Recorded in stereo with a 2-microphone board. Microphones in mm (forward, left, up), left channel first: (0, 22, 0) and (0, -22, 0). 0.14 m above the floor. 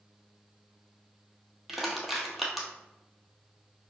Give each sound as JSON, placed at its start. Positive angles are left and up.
{"t": 1.7, "sound": "crushing", "side_deg": -5, "distance_m": 0.8}